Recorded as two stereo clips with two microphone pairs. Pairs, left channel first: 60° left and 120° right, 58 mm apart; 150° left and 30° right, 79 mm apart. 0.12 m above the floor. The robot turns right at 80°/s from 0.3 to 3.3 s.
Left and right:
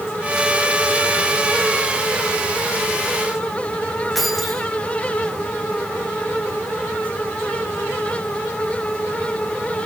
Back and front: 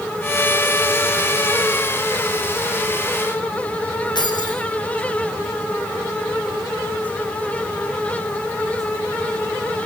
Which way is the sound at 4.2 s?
150° left.